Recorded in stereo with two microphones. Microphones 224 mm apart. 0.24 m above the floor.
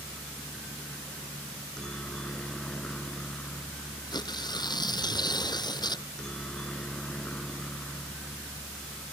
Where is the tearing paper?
20° left (ahead or behind).